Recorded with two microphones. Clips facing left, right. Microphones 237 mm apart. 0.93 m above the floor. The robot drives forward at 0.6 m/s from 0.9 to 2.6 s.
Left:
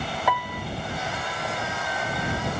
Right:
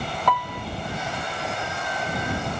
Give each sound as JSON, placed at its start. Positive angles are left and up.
{"t": 0.3, "sound": "a piano", "side_deg": 10, "distance_m": 0.6}